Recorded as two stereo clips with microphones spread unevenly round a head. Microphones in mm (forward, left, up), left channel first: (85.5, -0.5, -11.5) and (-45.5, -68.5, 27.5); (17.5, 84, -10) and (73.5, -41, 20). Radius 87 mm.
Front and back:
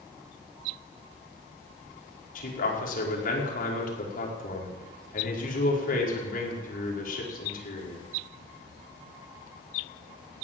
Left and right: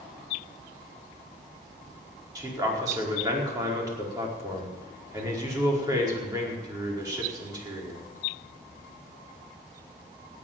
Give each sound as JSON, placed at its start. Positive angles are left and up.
{"t": 2.4, "sound": "a man speaking", "azimuth_deg": 0, "distance_m": 5.0}